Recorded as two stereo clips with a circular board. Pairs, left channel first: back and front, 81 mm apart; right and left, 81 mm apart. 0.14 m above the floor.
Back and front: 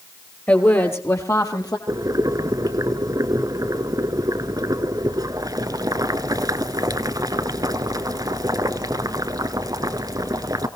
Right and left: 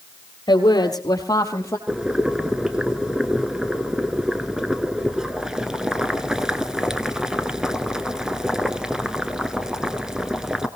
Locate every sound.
0.5 s a woman speaking: 115° right, 3 m; by 1.8 s 145° right, 3.5 m
1.9 s boiling: 10° left, 1.2 m